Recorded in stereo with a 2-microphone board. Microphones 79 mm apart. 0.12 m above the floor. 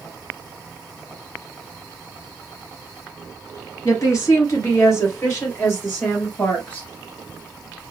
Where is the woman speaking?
40° left (ahead or behind), 2 m; by 6.9 s 25° left (ahead or behind), 3 m.